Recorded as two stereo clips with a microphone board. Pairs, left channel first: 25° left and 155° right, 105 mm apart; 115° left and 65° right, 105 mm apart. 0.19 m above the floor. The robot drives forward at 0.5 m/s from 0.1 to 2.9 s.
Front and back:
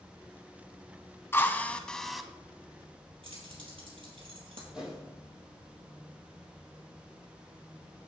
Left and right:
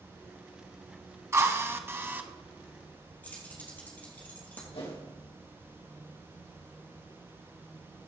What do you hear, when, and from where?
1.3 s a drill: 25° right, 0.9 m; by 2.3 s 75° right, 0.8 m
3.2 s keys jangling: 175° right, 4 m
4.7 s a whoosh: 120° left, 4 m